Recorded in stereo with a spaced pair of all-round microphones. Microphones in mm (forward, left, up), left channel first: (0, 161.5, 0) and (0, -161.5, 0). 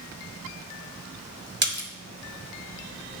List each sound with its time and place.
1.6 s a splash: 35° right (ahead or behind), 1.7 m